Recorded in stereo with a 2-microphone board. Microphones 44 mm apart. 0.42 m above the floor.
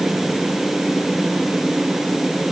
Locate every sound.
Only background noise.